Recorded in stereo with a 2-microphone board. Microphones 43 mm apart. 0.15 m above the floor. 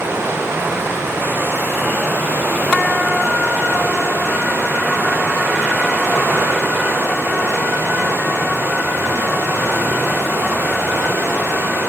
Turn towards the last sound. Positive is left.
turn(degrees=-75)  # may be behind; listen again after turning